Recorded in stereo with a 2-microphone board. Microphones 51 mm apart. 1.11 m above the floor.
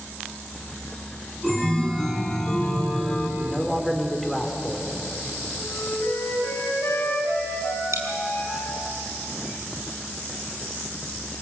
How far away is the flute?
About 7 m.